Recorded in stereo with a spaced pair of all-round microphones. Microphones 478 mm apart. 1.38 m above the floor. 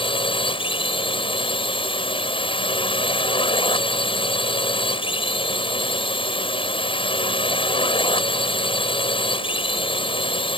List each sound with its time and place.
0.0 s a drone: 10° left (ahead or behind)